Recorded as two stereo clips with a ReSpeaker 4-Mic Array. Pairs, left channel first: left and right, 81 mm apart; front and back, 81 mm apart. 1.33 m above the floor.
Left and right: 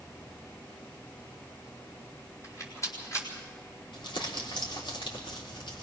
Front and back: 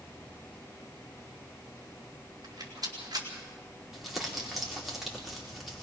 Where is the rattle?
140° left, 4 m.